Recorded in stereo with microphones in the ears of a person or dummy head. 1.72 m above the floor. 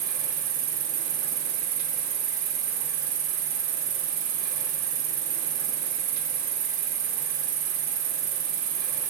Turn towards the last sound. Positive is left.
turn(degrees=-45)  # may be behind; listen again after turning